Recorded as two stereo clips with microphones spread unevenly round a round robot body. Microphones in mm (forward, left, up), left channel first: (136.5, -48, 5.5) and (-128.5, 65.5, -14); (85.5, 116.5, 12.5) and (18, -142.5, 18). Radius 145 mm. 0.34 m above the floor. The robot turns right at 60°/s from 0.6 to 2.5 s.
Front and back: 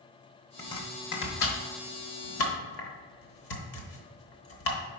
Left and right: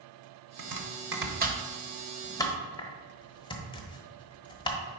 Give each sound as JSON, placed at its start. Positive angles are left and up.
{"t": 0.6, "sound": "chopping", "azimuth_deg": -105, "distance_m": 1.1}